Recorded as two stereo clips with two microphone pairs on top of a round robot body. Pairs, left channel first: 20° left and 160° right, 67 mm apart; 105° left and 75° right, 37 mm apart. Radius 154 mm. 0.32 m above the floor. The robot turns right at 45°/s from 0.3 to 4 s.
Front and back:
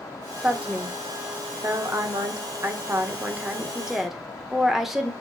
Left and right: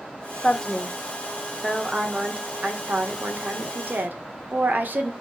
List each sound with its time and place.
0.4 s a woman speaking: 130° left, 1.8 m; by 5.1 s 70° right, 1.8 m